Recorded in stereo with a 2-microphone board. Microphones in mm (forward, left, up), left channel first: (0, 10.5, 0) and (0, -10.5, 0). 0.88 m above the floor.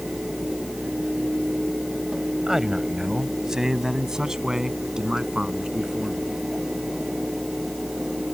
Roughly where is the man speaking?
Centre.